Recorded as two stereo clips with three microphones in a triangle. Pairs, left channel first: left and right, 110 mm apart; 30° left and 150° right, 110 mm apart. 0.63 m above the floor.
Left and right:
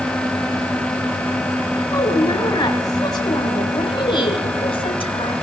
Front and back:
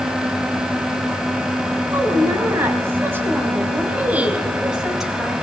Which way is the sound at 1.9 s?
150° left.